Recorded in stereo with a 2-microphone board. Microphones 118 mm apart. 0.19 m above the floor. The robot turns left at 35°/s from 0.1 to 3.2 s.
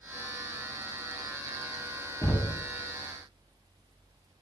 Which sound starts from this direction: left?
Knocking, at 2.2 s.